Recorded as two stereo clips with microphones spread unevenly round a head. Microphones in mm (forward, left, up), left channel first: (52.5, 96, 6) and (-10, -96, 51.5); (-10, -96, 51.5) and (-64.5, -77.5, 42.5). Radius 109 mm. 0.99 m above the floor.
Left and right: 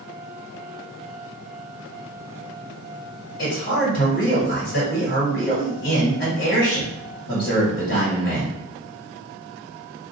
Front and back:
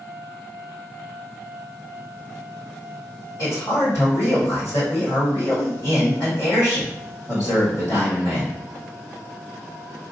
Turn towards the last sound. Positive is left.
turn(degrees=35)